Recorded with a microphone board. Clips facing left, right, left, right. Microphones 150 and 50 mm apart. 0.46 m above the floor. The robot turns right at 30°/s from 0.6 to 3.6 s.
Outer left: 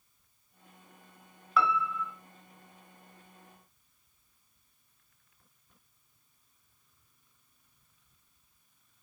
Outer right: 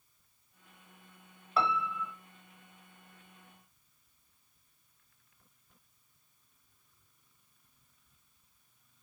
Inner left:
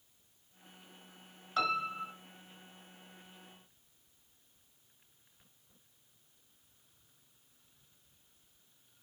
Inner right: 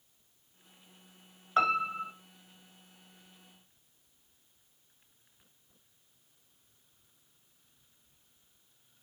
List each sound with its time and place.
1.6 s a piano: 35° right (ahead or behind), 0.8 m; by 2.1 s 20° right (ahead or behind), 0.8 m